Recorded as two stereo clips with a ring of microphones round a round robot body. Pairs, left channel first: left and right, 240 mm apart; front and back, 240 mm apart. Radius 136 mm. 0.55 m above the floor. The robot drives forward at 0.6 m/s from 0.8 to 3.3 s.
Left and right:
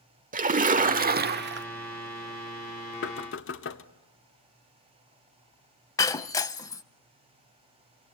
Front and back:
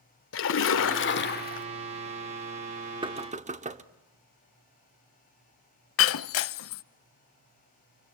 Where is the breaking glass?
15° left, 0.5 m.